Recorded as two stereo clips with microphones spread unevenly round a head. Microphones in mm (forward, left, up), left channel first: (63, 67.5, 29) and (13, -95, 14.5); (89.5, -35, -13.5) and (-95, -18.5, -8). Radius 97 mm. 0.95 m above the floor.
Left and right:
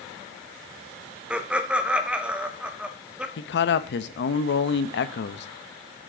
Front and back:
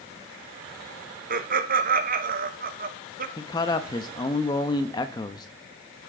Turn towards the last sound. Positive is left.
turn(degrees=65)